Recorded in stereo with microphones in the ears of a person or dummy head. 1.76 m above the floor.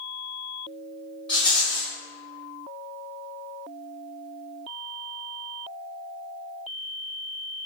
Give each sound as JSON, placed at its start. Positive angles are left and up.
{"t": 1.3, "sound": "a rattle", "side_deg": 10, "distance_m": 1.6}